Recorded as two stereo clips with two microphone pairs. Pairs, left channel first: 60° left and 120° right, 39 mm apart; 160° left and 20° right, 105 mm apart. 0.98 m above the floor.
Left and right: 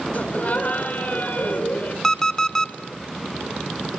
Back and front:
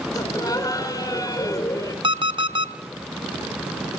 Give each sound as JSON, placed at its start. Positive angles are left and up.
{"t": 0.1, "sound": "laughter", "azimuth_deg": 105, "distance_m": 4.0}
{"t": 2.0, "sound": "an alarm clock", "azimuth_deg": -20, "distance_m": 0.8}